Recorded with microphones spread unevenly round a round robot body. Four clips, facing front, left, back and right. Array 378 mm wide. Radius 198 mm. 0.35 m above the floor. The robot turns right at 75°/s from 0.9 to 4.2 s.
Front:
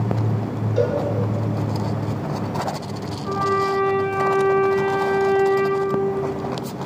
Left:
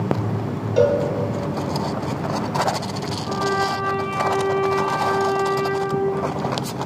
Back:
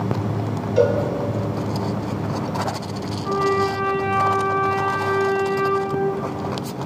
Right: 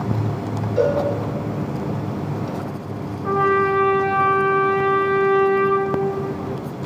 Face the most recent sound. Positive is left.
turn(degrees=-75)